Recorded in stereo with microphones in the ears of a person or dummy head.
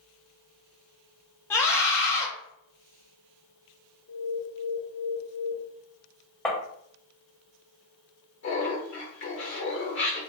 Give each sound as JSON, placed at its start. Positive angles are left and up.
{"t": 1.5, "sound": "a scream", "side_deg": 15, "distance_m": 0.5}
{"t": 4.1, "sound": "an alarm", "side_deg": 60, "distance_m": 1.7}
{"t": 6.5, "sound": "tapping", "side_deg": 10, "distance_m": 1.0}
{"t": 8.4, "sound": "laughter", "side_deg": 60, "distance_m": 1.2}